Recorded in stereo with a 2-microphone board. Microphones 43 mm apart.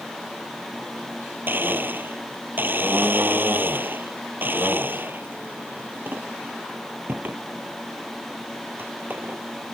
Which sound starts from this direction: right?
A blender, at 1.5 s.